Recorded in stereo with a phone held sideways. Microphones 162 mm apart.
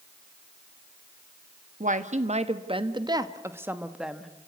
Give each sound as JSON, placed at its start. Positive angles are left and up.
{"t": 1.8, "sound": "a woman speaking", "side_deg": -60, "distance_m": 1.3}